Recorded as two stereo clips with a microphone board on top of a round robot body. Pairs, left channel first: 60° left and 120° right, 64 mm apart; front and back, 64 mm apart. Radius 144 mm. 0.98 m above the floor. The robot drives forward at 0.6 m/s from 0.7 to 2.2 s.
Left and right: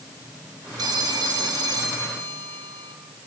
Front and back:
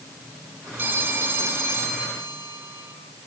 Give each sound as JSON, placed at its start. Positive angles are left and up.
{"t": 0.8, "sound": "a phone ringing", "azimuth_deg": -120, "distance_m": 4.0}